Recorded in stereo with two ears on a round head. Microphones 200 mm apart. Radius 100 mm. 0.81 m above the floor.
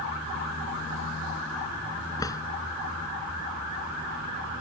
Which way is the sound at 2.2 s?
15° left (ahead or behind).